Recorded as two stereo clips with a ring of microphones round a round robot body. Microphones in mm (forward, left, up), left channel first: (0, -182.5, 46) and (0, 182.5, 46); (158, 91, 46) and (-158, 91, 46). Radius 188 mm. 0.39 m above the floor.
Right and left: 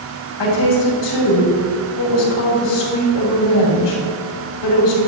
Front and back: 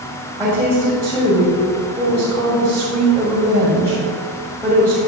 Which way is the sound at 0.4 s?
105° right.